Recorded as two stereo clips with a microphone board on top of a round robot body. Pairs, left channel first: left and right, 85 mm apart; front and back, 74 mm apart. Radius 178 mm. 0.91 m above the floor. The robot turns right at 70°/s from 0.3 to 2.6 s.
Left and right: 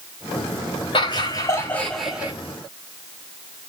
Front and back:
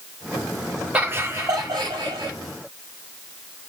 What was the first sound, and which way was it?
Laughter, 110° left.